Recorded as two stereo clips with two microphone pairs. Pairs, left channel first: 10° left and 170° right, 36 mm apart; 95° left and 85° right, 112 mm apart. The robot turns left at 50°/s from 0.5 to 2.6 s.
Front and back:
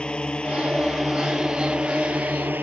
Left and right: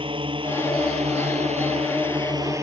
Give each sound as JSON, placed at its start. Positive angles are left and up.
{"t": 0.0, "sound": "a drone", "azimuth_deg": -50}